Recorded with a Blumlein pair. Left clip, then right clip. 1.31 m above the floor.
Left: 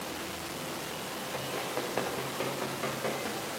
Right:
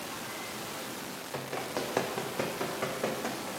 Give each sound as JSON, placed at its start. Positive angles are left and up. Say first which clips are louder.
{"t": 1.3, "sound": "running footsteps", "louder": "even", "azimuth_deg": -30, "distance_m": 5.0}